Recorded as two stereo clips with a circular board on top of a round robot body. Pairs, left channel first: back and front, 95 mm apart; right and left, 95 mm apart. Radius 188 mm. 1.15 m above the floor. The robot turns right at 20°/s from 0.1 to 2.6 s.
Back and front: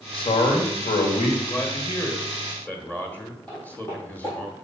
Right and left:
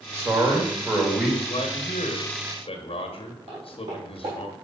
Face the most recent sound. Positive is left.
turn(degrees=135)